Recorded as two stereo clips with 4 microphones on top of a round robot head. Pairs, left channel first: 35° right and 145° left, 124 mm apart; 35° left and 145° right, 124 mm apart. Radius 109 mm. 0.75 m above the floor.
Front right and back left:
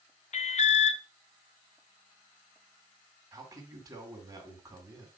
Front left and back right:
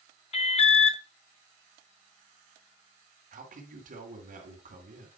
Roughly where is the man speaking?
Behind right.